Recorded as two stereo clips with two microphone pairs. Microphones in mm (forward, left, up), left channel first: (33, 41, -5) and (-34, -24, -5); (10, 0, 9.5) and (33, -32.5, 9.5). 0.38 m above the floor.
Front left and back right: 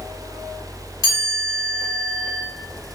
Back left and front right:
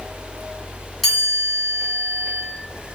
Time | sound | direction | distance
1.0 | a chime | 45° left | 1.8 m